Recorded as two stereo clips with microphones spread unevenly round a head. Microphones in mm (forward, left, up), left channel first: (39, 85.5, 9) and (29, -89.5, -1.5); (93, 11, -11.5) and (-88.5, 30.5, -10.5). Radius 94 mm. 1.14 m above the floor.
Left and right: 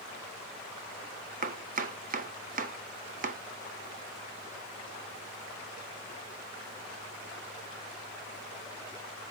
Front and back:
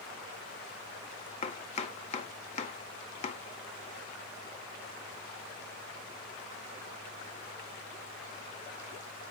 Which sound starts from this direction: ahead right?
Chopping, at 1.4 s.